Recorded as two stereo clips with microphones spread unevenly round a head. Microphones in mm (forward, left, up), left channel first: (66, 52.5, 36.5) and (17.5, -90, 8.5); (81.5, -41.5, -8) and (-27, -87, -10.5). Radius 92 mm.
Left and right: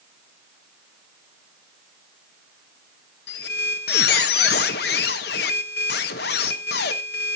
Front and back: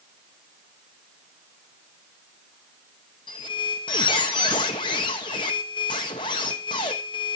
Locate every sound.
3.3 s a squeak: 85° left, 1.2 m